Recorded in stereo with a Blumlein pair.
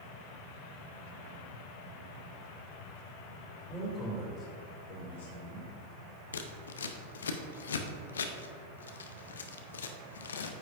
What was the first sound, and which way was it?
A man speaking, 10° left.